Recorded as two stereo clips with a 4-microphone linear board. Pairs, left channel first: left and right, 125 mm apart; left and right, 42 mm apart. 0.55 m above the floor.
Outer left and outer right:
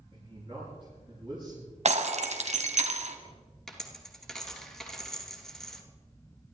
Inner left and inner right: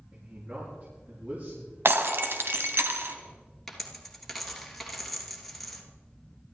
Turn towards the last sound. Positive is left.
turn(degrees=5)  # may be behind; listen again after turning